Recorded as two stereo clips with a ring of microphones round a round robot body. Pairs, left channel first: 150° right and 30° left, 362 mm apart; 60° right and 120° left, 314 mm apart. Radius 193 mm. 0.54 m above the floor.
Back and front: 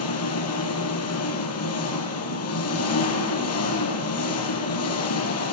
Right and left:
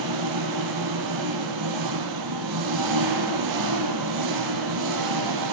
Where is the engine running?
160° left, 4.5 m.